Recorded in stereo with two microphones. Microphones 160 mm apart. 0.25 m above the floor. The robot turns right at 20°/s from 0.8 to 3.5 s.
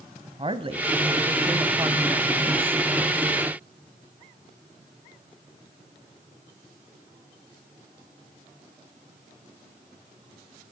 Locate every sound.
0.4 s a woman speaking: 55° right, 1.3 m; by 2.8 s 15° right, 1.3 m